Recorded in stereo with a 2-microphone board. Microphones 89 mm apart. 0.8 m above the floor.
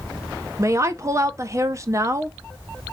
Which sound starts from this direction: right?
A woman speaking, at 0.6 s.